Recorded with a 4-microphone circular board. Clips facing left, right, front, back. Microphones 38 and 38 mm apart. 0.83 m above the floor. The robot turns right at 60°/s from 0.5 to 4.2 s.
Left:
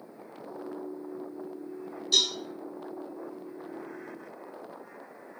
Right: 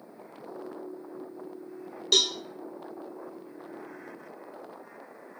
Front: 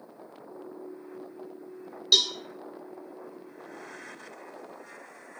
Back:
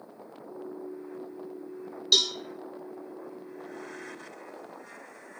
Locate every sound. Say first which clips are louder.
2.1 s a cowbell: right 2 dB, front 1 dB; 85° right, 1.5 m; by 2.3 s 75° right, 1.5 m